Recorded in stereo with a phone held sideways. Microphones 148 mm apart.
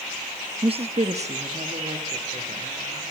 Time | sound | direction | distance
0.6 | a woman speaking | 35° right (ahead or behind) | 0.5 m